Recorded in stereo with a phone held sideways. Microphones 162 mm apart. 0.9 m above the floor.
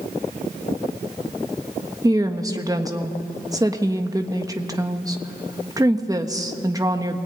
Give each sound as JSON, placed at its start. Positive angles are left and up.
{"t": 2.0, "sound": "a woman speaking", "side_deg": -20, "distance_m": 1.3}